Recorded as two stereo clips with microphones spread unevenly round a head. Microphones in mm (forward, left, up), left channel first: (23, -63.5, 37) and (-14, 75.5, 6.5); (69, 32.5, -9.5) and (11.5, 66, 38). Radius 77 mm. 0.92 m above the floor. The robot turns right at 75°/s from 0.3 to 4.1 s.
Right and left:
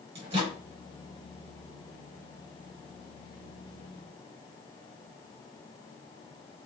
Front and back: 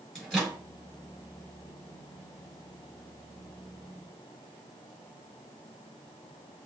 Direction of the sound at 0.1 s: 50° left.